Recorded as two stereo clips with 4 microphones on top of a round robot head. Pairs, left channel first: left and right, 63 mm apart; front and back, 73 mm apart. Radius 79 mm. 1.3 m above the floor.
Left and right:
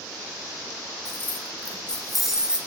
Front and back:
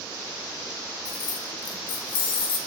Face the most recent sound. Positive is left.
turn(degrees=-20)